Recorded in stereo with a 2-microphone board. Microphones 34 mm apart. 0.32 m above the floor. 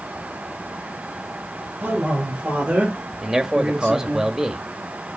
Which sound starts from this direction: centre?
A man speaking, at 3.2 s.